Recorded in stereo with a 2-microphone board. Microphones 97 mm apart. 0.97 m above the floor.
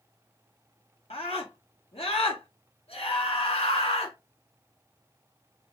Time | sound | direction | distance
1.1 | a scream | 80° left | 1.5 m